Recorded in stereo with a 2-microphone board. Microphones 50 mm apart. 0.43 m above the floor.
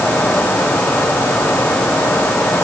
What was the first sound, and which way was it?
Only background noise.